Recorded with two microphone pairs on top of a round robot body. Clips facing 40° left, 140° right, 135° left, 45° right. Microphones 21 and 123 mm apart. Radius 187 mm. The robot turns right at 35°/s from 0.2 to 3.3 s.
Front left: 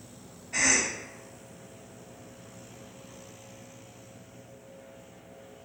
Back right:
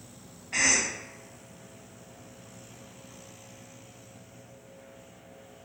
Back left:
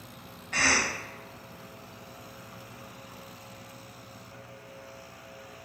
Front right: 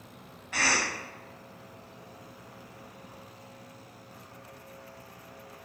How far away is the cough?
About 1.5 m.